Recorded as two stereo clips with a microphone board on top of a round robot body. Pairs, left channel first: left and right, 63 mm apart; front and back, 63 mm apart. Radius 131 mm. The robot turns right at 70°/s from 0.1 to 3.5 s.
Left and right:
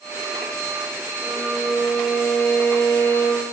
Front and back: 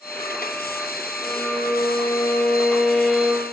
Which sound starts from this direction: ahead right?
A violin, at 1.2 s.